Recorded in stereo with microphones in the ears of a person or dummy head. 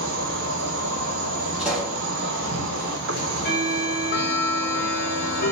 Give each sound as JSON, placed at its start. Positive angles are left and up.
{"t": 0.0, "sound": "an insect", "side_deg": -70, "distance_m": 2.5}
{"t": 1.6, "sound": "a pop", "side_deg": -5, "distance_m": 2.0}
{"t": 3.1, "sound": "ticking", "side_deg": 55, "distance_m": 1.2}